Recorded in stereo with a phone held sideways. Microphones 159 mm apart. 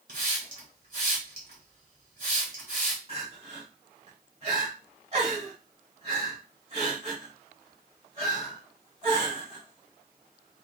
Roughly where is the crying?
Right.